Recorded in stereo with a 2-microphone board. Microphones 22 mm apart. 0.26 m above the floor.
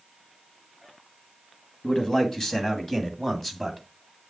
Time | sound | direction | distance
1.8 | a man speaking | 35° left (ahead or behind) | 2 m